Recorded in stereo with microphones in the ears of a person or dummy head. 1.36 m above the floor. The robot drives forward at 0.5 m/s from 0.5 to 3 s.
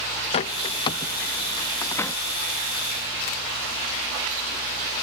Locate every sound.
0.3 s a bird: 30° left (ahead or behind); by 2.2 s 15° left (ahead or behind)